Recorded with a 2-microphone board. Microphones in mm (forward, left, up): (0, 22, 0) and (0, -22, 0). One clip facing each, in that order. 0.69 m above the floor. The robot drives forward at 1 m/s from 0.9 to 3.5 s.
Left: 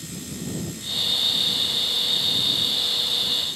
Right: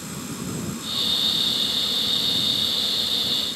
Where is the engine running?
60° right (ahead or behind); by 3.6 s 45° right (ahead or behind).